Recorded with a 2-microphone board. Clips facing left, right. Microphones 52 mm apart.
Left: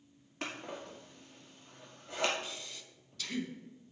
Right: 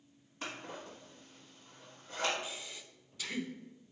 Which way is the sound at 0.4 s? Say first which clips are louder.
Left 2 dB; 75° left (ahead or behind).